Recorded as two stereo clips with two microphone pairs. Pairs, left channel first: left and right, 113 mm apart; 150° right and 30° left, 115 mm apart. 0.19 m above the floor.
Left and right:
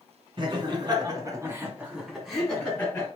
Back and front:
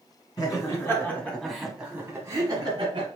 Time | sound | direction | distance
0.4 | laughter | 105° right | 1.9 m